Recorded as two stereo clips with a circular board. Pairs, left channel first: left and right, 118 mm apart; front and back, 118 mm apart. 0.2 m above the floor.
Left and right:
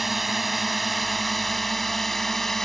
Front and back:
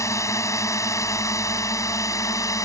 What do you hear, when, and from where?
0.0 s a drone: straight ahead; by 2.7 s 5° left